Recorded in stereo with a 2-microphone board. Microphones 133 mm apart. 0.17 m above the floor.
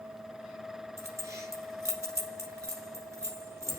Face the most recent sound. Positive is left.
turn(degrees=-20)  # may be behind; listen again after turning